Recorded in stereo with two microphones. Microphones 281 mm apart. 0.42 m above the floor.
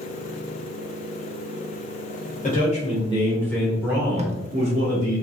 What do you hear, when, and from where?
2.4 s a man speaking: 30° left (ahead or behind), 1.7 m; by 5.2 s 45° right (ahead or behind), 1.4 m
4.2 s tape being pulled: 25° right (ahead or behind), 0.5 m